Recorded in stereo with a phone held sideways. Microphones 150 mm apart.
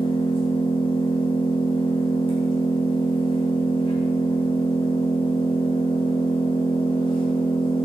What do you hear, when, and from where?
0.0 s an engine running: 35° left (ahead or behind), 3 m